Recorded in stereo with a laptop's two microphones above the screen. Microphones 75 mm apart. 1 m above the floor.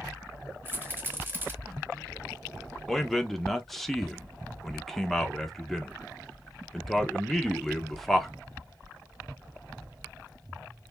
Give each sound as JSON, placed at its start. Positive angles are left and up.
{"t": 0.7, "sound": "a rattle", "side_deg": -30, "distance_m": 2.5}
{"t": 2.9, "sound": "a man speaking", "side_deg": 5, "distance_m": 1.1}